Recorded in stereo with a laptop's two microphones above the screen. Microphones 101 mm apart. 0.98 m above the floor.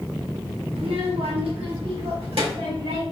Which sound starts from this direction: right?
A child speaking, at 0.8 s.